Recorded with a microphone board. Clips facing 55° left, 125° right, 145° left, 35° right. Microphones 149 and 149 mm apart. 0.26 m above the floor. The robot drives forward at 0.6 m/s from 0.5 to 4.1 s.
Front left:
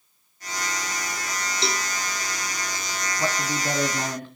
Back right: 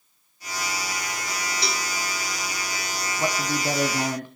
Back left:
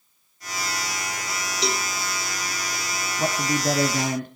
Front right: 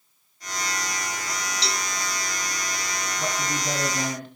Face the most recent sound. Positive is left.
turn(degrees=165)